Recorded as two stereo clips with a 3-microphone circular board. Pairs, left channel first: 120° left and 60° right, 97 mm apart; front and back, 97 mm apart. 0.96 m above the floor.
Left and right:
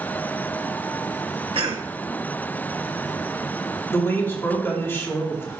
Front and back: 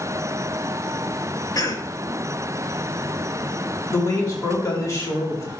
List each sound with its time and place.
1.6 s a cough: 50° right, 1.1 m
3.9 s a man speaking: 55° left, 2 m